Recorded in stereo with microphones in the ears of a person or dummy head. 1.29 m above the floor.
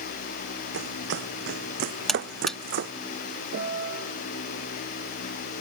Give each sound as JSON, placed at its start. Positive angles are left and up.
{"t": 0.7, "sound": "running footsteps", "side_deg": -75}
{"t": 2.1, "sound": "a buzzer", "side_deg": 0}
{"t": 3.5, "sound": "a piano", "side_deg": -70}